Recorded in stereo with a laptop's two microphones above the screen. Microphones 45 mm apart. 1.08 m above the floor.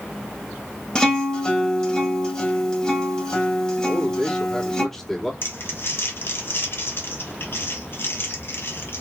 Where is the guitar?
15° left (ahead or behind), 2.5 m.